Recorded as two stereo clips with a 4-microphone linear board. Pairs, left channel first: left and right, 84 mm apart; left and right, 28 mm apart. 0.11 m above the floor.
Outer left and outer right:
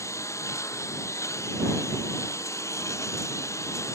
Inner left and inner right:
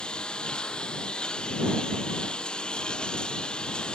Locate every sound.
0.0 s a lawn mower: 35° left (ahead or behind)